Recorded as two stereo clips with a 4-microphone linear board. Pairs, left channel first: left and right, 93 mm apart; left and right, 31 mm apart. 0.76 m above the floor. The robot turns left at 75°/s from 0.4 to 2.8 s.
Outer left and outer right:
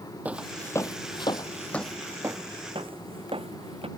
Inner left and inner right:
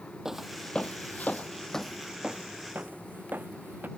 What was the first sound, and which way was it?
Footsteps, 15° right (ahead or behind).